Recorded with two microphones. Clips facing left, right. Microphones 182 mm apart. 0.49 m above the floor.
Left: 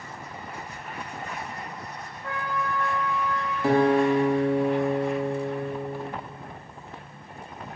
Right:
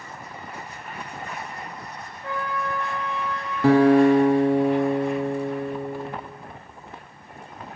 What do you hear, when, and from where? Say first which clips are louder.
2.2 s a trumpet: right 2 dB; 90° right, 3.5 m
3.6 s a guitar: right 6 dB; 80° right, 1.1 m